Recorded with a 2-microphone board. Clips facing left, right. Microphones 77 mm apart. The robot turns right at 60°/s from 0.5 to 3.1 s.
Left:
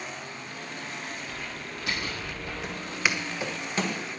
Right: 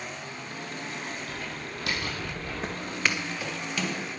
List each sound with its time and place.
1.3 s typing on a keyboard: 60° right (ahead or behind), 4.5 m; by 2.5 s 40° right (ahead or behind), 4.5 m
2.6 s footsteps: 40° right (ahead or behind), 1.3 m; by 4.0 s 35° left (ahead or behind), 2.5 m